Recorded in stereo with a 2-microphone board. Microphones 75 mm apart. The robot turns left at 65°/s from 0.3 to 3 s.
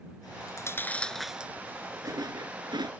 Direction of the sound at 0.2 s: 60° left (ahead or behind).